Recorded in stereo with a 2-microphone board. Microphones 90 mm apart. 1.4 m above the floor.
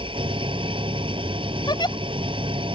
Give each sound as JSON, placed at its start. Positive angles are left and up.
{"t": 0.0, "sound": "an engine running", "side_deg": -70}
{"t": 1.7, "sound": "a giggle", "side_deg": 55}